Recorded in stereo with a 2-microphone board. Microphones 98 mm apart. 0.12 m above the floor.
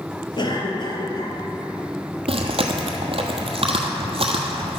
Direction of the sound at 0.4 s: 50° left (ahead or behind).